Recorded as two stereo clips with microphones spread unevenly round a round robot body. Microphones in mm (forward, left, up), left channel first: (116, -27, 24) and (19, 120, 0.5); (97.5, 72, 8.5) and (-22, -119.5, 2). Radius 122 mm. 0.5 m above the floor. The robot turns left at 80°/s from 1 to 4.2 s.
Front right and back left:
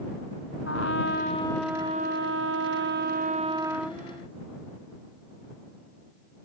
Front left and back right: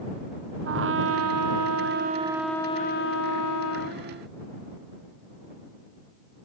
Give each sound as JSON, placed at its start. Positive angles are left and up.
{"t": 0.7, "sound": "a trumpet", "azimuth_deg": -95}